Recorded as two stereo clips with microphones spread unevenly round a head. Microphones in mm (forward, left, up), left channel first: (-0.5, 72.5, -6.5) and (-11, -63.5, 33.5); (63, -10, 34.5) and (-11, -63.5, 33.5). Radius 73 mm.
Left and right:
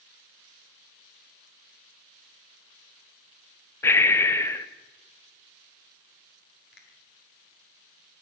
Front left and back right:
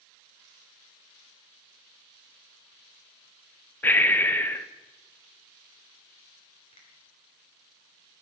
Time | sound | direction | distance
3.8 | breathing | 90° left | 0.7 m
6.7 | a finger snap | 80° left | 3 m